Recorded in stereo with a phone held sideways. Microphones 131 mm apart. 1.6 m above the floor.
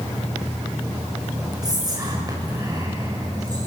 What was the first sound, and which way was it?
Whispering, 30° right (ahead or behind).